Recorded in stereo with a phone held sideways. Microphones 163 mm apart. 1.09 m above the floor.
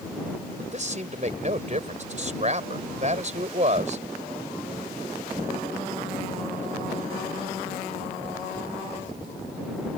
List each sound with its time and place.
0.6 s a man speaking: 45° right (ahead or behind)